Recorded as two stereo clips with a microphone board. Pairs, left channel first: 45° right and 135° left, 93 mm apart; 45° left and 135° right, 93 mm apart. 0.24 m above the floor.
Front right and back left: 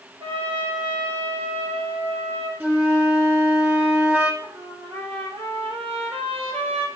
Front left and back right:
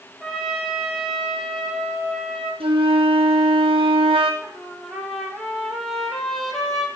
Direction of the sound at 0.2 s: 135° left.